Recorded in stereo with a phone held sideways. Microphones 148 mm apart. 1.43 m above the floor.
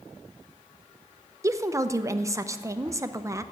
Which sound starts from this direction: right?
A woman speaking, at 1.4 s.